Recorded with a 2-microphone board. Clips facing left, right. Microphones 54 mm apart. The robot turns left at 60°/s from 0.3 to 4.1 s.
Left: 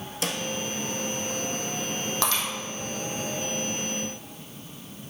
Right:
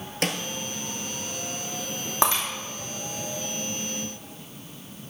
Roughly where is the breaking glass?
Right.